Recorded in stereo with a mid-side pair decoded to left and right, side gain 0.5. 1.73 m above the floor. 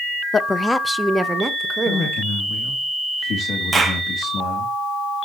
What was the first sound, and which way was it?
A woman speaking, 35° left.